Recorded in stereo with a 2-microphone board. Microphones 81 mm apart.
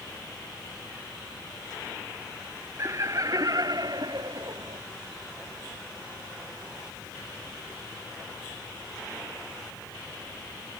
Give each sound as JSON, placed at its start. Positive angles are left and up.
{"t": 2.8, "sound": "laughter", "side_deg": -40}